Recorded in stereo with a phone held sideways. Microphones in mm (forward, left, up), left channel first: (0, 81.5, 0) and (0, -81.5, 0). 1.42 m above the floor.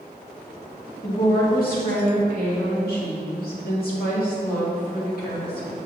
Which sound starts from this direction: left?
A woman speaking, at 1.0 s.